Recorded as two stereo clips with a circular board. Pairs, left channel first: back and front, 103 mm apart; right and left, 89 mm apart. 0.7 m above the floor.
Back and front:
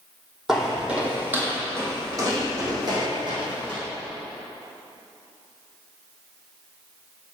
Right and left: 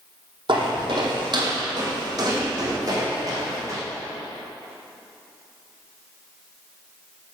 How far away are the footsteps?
About 1.6 m.